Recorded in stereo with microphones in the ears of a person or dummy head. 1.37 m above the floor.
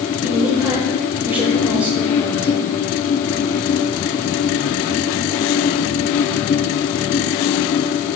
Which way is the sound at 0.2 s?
10° right (ahead or behind).